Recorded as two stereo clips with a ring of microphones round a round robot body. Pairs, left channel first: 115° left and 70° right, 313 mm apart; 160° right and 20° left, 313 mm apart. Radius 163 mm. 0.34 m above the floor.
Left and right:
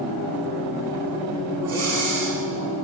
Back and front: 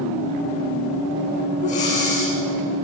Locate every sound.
1.6 s breathing: 90° right, 8.5 m